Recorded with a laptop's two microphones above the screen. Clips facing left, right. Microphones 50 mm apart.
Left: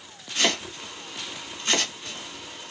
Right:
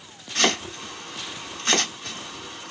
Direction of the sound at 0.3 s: 65° right (ahead or behind).